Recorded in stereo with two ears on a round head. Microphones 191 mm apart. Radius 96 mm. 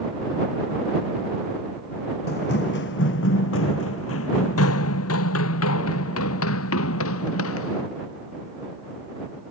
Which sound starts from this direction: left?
Running footsteps, at 2.3 s.